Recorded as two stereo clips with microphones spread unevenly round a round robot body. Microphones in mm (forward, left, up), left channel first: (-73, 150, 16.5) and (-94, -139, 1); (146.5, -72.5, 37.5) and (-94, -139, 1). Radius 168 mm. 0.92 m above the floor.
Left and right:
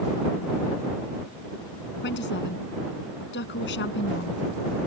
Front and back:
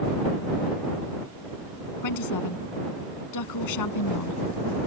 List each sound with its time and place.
2.0 s a woman speaking: 25° left